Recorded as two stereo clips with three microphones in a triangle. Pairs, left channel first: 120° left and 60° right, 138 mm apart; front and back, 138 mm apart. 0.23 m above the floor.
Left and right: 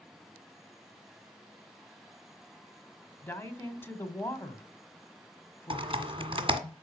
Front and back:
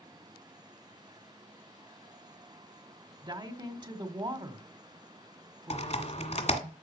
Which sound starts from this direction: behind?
A woman speaking, at 3.2 s.